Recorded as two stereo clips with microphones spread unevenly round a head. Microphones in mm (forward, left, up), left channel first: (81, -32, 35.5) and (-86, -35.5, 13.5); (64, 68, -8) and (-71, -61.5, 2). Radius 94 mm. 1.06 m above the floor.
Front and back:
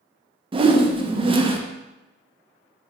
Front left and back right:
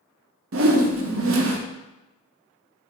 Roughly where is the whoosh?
Behind right.